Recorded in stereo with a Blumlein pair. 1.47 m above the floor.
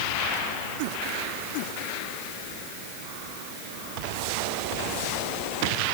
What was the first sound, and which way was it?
Only background noise.